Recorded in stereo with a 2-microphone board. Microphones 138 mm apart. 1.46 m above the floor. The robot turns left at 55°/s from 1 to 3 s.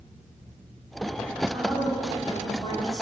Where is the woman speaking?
150° right, 3.5 m; by 3.0 s 125° left, 3.5 m.